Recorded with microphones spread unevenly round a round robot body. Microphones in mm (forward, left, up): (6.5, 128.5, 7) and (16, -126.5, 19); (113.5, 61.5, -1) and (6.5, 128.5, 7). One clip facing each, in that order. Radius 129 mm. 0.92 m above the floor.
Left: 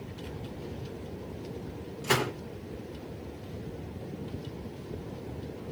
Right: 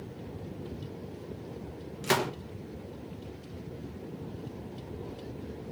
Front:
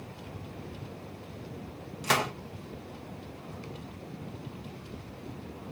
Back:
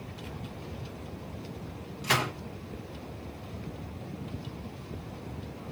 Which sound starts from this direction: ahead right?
A gunshot, at 2.0 s.